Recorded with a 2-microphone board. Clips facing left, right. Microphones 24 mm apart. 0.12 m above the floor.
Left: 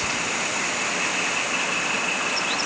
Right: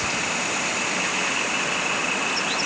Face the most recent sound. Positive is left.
No sound to turn to.